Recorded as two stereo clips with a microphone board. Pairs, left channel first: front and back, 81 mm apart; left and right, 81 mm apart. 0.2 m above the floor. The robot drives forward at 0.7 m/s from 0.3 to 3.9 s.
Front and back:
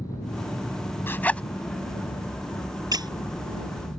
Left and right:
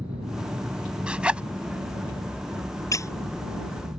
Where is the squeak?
140° left; by 3.1 s 145° left.